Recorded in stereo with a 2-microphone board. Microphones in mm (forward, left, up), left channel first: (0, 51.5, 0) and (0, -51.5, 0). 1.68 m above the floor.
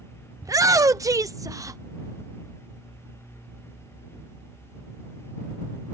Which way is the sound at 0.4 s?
35° right (ahead or behind).